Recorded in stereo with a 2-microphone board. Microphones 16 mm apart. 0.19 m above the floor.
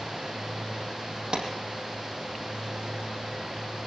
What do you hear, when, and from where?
1.3 s a clap: 45° right (ahead or behind), 5 m